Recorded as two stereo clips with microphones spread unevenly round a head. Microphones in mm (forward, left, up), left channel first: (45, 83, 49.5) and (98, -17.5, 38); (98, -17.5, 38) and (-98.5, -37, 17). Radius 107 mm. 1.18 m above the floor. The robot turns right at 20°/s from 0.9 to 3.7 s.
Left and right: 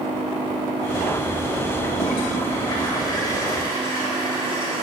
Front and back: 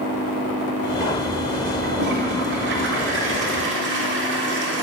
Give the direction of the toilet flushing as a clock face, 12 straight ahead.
7 o'clock.